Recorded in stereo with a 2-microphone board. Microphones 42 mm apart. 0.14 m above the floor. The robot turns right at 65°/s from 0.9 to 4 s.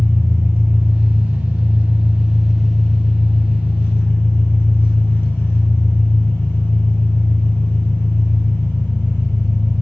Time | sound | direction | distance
0.0 | an engine running | 110° right | 1.2 m